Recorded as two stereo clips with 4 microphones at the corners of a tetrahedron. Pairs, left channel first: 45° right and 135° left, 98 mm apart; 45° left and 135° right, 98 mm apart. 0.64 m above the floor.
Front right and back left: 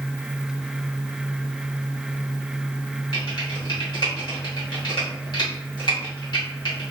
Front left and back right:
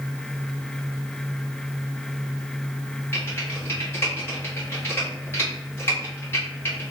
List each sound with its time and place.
3.1 s typing on a keyboard: 20° right, 2 m